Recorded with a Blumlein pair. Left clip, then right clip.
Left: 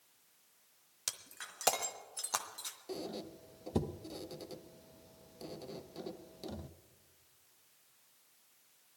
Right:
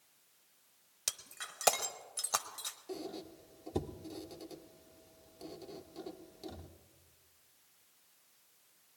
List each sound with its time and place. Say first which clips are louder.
1.1 s breaking glass: right 2 dB; 5° right, 0.9 m
2.9 s a squeak: left 1 dB; 10° left, 0.6 m